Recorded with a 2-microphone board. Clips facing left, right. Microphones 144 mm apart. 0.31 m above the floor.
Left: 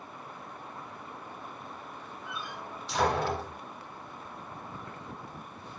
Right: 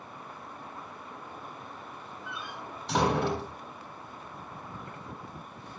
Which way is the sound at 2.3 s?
65° right (ahead or behind).